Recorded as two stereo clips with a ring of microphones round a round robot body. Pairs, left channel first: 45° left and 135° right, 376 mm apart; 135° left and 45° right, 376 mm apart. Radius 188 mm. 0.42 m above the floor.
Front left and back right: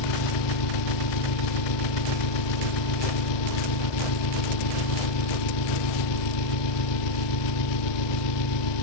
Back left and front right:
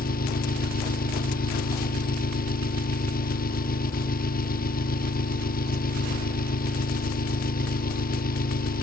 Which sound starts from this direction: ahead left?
An engine running, at 0.0 s.